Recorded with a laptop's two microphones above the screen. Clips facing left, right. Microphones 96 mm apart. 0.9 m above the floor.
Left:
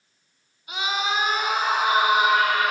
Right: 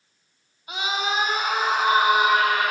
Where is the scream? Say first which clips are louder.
Even; 35° right (ahead or behind), 2.5 m; by 2.7 s 40° right (ahead or behind), 3.5 m.